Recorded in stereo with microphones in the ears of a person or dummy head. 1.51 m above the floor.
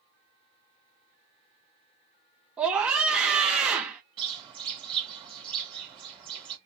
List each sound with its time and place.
2.6 s a scream: 5° right (ahead or behind), 0.6 m
4.2 s a bird: 30° right (ahead or behind), 1.5 m